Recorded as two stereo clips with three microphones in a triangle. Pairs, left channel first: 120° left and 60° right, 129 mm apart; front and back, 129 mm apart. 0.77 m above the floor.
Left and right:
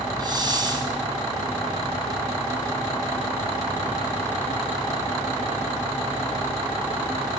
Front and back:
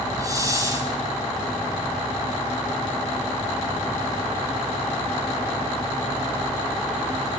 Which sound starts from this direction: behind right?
A hiss, at 0.2 s.